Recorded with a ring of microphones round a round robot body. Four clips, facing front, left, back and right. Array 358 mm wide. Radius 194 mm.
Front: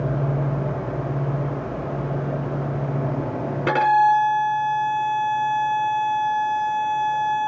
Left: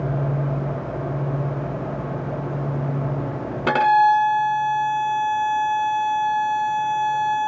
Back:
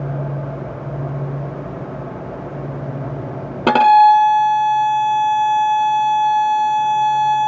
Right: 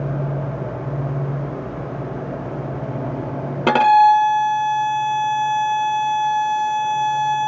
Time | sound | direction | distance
3.7 | a violin | 155° right | 0.5 m